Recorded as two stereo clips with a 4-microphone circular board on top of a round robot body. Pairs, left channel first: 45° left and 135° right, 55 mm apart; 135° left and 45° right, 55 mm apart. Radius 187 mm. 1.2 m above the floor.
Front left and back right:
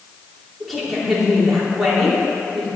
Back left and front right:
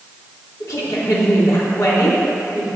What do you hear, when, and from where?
0.6 s a woman speaking: 135° left, 3 m